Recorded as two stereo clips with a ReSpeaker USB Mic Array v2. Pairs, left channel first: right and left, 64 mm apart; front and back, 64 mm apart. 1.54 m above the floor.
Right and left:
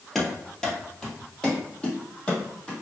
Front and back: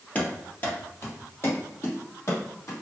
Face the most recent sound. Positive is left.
turn(degrees=-25)